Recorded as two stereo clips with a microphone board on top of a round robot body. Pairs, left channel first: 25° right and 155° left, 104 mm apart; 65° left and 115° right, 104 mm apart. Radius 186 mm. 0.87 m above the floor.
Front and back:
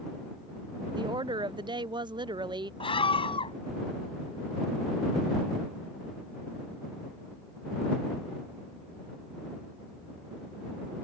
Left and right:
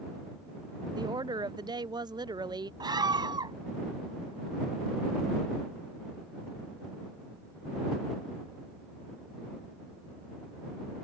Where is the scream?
60° right.